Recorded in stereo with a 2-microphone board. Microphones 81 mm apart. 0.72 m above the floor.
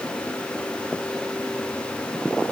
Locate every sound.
Only background noise.